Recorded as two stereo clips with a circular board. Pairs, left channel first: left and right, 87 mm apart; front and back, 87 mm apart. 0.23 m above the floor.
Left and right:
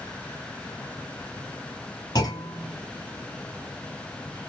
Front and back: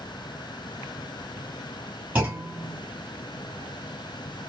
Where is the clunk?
115° left, 1.7 m.